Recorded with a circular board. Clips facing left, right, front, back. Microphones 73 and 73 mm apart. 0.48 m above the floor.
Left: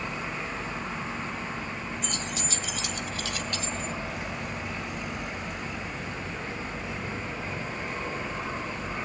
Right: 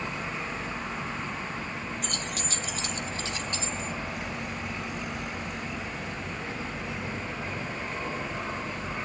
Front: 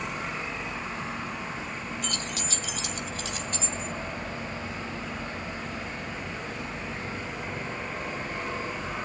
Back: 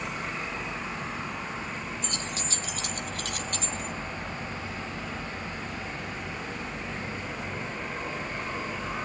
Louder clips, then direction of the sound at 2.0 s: Left 1 dB, front 1 dB; 115° right.